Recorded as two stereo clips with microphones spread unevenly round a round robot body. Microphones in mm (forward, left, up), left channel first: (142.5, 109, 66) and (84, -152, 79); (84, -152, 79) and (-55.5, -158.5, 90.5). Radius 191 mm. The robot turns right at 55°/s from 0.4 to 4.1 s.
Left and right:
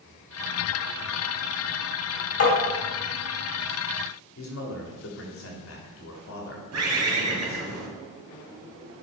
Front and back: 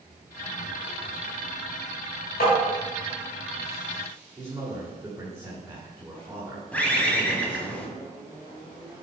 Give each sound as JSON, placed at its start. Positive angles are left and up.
{"t": 2.4, "sound": "tapping", "azimuth_deg": 45, "distance_m": 2.5}
{"t": 4.4, "sound": "a man speaking", "azimuth_deg": 110, "distance_m": 1.4}
{"t": 6.7, "sound": "a bird", "azimuth_deg": -80, "distance_m": 1.9}